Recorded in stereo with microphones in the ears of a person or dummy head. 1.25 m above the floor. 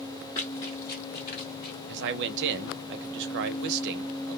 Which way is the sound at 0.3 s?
10° left (ahead or behind).